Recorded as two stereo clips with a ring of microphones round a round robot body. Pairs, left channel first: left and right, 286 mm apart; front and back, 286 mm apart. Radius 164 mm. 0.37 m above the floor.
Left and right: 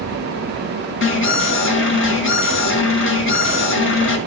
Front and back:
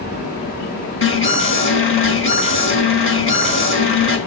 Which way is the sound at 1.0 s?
45° left.